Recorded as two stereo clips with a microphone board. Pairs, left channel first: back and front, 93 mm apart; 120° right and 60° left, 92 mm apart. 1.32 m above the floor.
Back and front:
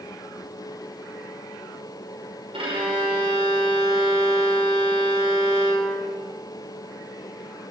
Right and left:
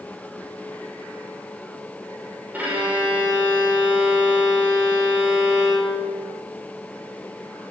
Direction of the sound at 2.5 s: 10° right.